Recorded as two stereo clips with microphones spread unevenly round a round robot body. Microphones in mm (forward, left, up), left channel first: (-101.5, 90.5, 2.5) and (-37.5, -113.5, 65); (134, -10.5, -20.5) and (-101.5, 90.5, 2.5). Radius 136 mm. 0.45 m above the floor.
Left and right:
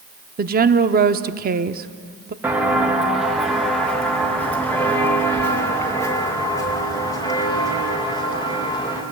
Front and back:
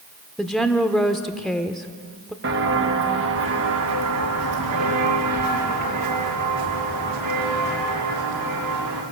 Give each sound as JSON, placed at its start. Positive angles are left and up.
{"t": 0.4, "sound": "a woman speaking", "azimuth_deg": -105, "distance_m": 0.9}
{"t": 2.4, "sound": "footsteps", "azimuth_deg": -150, "distance_m": 2.5}